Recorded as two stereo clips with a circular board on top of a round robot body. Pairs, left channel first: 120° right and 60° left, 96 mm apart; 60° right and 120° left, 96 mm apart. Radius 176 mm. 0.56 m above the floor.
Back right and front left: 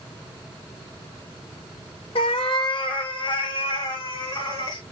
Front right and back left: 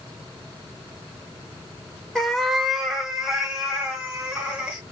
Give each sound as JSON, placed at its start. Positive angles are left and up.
{"t": 2.1, "sound": "a cat meowing", "azimuth_deg": -150, "distance_m": 0.8}